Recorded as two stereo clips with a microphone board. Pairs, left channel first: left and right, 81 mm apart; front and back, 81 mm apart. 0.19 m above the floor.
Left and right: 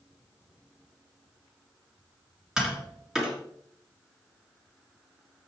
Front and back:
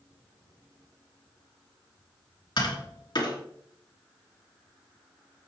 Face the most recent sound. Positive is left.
turn(degrees=-5)